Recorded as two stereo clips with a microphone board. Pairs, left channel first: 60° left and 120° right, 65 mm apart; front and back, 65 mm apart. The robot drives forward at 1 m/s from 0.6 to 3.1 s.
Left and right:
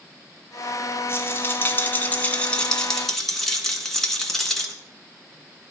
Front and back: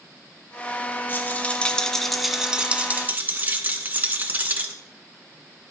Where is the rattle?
40° left, 2.0 m; by 4.8 s 140° left, 2.0 m.